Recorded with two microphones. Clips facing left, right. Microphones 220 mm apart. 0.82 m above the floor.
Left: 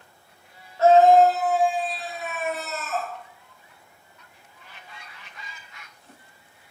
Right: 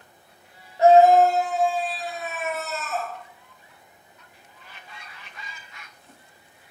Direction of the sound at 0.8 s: 15° right (ahead or behind).